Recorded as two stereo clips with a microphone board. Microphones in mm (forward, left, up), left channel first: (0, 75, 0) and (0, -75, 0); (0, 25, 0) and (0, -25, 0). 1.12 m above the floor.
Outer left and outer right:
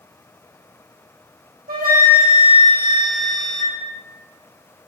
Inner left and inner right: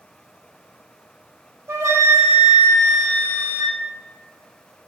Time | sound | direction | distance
1.7 | a flute | 75° right (ahead or behind) | 0.8 m